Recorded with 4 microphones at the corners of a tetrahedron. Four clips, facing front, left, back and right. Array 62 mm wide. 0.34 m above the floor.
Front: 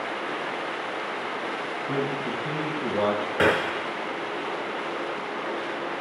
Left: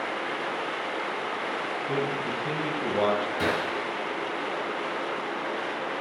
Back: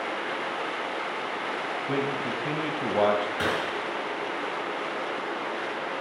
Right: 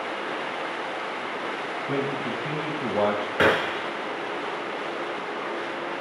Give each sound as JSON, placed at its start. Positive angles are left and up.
{"t": 1.9, "sound": "a man speaking", "azimuth_deg": -150, "distance_m": 1.5}
{"t": 3.4, "sound": "a gunshot", "azimuth_deg": -60, "distance_m": 0.8}